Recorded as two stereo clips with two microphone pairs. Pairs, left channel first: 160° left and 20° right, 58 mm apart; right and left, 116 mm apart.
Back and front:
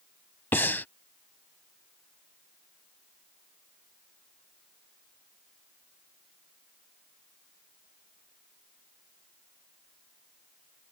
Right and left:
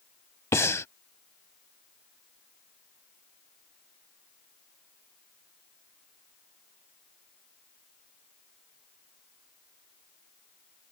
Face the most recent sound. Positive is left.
turn(degrees=-150)